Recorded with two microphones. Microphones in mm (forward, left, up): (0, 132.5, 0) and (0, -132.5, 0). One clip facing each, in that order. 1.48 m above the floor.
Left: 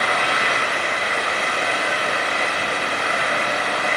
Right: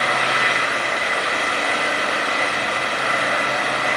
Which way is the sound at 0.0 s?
80° right.